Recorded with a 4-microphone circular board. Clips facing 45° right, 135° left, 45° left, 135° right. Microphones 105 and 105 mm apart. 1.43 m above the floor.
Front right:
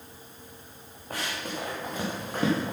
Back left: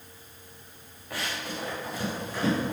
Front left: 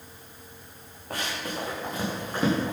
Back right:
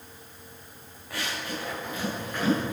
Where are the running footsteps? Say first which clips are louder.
Front right 1 dB, front left 1 dB; straight ahead, 6.5 m; by 2.7 s 10° right, 7 m.